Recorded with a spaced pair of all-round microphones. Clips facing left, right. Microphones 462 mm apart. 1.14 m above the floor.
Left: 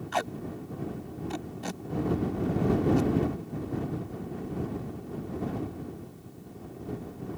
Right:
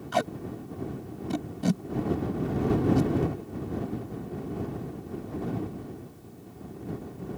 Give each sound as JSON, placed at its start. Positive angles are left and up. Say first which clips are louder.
{"t": 0.1, "sound": "tape being pulled", "louder": "right 5 dB", "side_deg": -55}